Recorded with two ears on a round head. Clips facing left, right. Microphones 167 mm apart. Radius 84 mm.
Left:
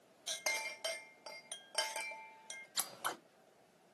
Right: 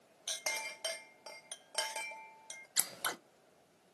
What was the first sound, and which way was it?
A clink, centre (ahead or behind).